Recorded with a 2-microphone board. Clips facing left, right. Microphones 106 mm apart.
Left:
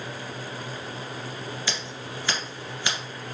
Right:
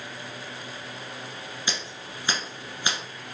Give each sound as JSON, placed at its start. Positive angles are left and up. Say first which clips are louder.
{"t": 1.7, "sound": "scissors", "louder": "left 2 dB", "side_deg": -20, "distance_m": 1.7}